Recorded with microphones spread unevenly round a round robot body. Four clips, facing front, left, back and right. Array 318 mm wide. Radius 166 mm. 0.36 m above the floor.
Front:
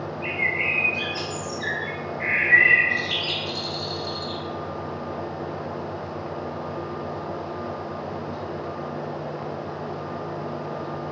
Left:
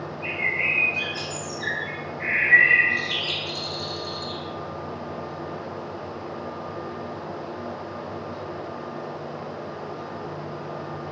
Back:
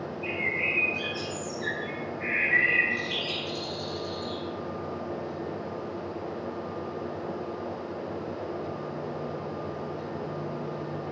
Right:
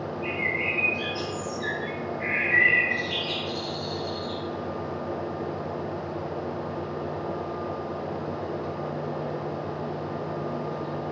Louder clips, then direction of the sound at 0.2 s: Left 1 dB, front 3 dB; 50° left.